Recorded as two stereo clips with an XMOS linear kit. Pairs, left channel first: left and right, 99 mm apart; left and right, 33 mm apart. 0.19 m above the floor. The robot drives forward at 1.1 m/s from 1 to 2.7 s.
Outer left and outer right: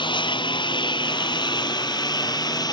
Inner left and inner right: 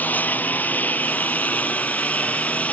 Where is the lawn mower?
55° left (ahead or behind); by 2.7 s 45° left (ahead or behind).